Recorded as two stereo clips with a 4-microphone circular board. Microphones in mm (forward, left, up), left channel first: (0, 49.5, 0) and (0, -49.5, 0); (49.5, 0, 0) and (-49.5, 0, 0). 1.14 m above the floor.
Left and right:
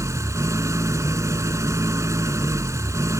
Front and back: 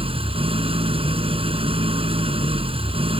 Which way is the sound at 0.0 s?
155° right.